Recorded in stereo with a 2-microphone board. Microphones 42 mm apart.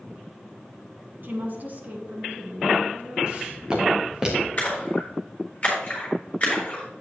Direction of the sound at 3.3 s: 25° right (ahead or behind).